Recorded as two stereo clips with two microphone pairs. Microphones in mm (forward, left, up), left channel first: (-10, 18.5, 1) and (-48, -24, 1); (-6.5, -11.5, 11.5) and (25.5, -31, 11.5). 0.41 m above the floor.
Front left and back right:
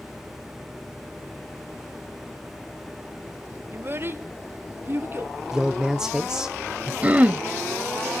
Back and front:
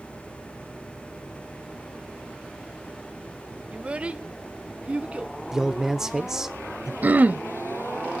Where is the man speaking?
80° right, 0.8 m.